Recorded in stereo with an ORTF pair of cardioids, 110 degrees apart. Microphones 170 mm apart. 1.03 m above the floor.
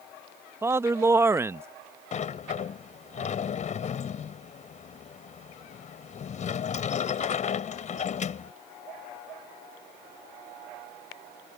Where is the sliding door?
45° left.